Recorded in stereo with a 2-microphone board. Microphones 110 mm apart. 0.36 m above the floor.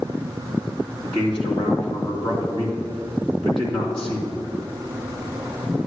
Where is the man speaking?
55° left (ahead or behind), 2.5 m.